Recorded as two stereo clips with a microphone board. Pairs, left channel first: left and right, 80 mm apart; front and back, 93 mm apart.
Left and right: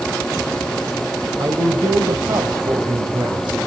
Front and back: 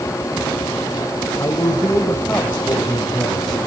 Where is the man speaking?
55° right, 2.5 m; by 3.6 s 85° right, 4 m.